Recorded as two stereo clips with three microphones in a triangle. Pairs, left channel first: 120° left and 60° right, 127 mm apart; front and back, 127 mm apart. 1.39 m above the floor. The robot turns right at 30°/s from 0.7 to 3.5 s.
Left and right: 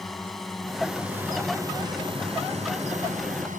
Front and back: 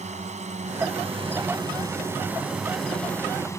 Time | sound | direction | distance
0.0 | a drone | 150° right | ?